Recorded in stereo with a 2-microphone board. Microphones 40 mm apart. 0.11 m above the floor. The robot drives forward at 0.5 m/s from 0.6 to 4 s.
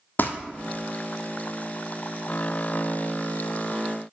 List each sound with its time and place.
0.2 s crumpling: 55° left (ahead or behind), 0.7 m